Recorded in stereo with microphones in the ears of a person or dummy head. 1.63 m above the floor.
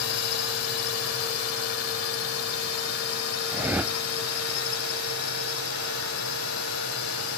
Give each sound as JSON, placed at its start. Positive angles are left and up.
{"t": 0.0, "sound": "a drone", "side_deg": 80}
{"t": 3.5, "sound": "a whoosh", "side_deg": -5}